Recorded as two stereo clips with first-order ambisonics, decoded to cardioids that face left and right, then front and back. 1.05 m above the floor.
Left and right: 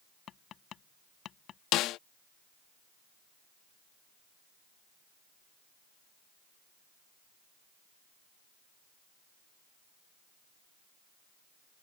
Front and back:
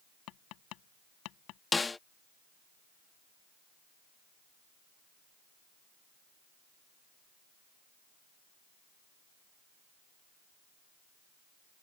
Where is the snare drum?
75° left.